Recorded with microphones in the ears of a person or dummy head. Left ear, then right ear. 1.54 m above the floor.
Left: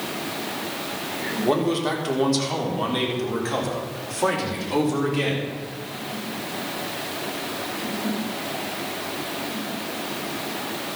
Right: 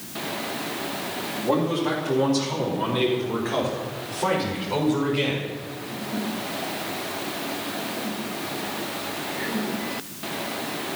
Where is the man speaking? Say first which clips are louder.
Left 1 dB; 80° left, 4 m; by 5.5 s 45° left (ahead or behind), 4.5 m.